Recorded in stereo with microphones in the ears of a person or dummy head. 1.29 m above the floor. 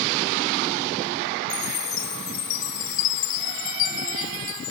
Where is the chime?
45° left (ahead or behind), 1.0 m.